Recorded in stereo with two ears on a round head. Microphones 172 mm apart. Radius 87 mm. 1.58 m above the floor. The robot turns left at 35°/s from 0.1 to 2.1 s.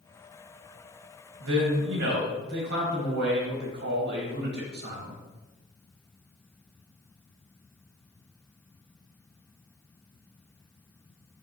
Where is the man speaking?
80° right, 1.4 m; by 5.2 s 60° right (ahead or behind), 1.4 m.